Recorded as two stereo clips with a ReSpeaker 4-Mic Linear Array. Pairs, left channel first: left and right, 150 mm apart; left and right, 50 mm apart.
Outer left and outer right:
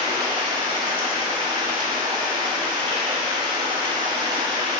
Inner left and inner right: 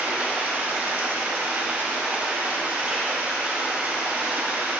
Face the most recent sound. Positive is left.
turn(degrees=-30)  # may be behind; listen again after turning